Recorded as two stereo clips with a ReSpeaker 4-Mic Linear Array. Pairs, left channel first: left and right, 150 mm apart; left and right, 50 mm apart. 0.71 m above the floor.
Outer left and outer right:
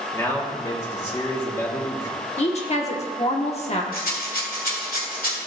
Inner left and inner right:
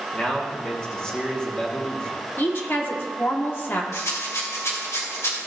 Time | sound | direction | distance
0.1 | a man speaking | 20° left (ahead or behind) | 1.3 m
2.4 | a woman speaking | 45° left (ahead or behind) | 1.3 m
3.9 | a rattle | 75° left (ahead or behind) | 1.8 m